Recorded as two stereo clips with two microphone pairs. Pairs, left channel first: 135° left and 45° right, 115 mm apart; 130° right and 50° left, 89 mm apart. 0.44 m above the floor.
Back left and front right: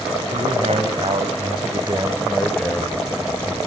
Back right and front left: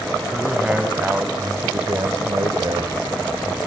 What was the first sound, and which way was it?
A man speaking, 30° right.